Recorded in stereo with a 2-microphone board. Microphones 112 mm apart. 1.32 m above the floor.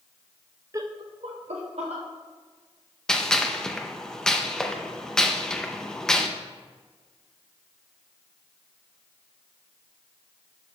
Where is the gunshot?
5° left (ahead or behind), 0.5 m.